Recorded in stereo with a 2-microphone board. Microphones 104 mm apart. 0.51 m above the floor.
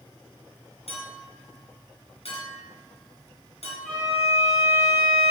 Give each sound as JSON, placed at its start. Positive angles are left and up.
{"t": 0.9, "sound": "a clink", "side_deg": 85, "distance_m": 3.5}
{"t": 3.9, "sound": "a violin", "side_deg": 5, "distance_m": 3.5}